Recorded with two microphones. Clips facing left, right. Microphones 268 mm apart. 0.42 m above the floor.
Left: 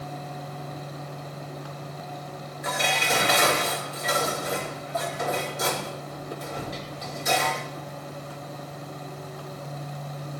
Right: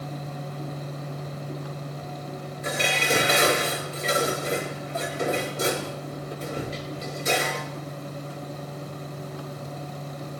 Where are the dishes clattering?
30° right (ahead or behind), 5 m.